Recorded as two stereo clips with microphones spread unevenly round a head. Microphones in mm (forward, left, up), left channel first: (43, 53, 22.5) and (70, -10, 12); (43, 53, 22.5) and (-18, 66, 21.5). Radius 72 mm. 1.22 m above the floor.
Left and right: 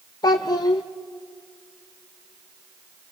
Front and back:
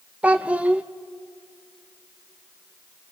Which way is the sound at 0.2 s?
100° left.